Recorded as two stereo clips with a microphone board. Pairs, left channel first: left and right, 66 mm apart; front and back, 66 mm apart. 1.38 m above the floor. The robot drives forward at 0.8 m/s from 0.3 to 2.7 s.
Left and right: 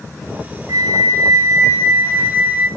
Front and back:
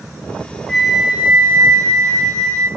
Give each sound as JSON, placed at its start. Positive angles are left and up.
{"t": 0.7, "sound": "a flute", "azimuth_deg": -80, "distance_m": 0.8}